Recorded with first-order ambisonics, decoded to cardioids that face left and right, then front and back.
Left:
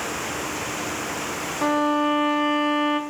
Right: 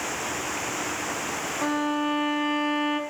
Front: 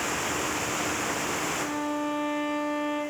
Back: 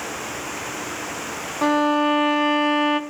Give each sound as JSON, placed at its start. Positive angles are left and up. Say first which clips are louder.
{"t": 1.6, "sound": "a violin", "louder": "left 6 dB, back 11 dB", "azimuth_deg": 170, "distance_m": 0.9}